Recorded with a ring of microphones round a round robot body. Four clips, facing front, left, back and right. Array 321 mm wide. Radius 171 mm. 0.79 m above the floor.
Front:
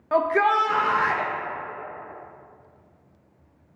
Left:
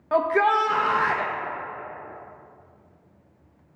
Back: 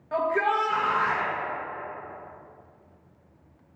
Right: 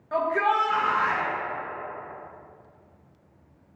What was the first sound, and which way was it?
A shout, 45° left.